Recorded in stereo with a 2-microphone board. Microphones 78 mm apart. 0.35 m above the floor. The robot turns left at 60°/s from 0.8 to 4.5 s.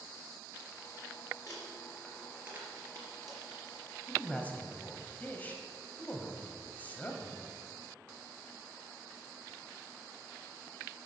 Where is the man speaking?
Centre (ahead or behind), 1.6 m; by 7.5 s 25° left (ahead or behind), 1.6 m.